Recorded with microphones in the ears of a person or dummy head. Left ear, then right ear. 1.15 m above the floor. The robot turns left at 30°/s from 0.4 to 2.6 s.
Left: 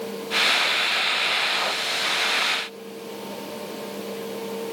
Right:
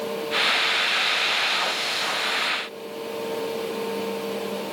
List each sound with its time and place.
Only background noise.